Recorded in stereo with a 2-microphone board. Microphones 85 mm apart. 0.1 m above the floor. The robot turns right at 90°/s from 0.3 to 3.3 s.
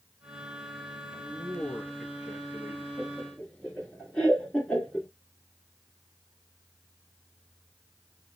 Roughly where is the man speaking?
Left.